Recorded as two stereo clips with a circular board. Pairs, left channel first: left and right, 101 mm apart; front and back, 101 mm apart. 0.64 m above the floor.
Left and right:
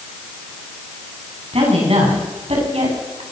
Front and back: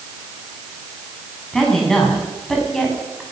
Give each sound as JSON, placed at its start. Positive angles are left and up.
{"t": 1.5, "sound": "a woman speaking", "azimuth_deg": -85, "distance_m": 6.0}